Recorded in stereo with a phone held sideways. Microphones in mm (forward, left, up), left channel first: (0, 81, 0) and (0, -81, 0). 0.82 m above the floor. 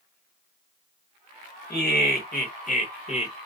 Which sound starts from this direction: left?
Laughter, at 1.7 s.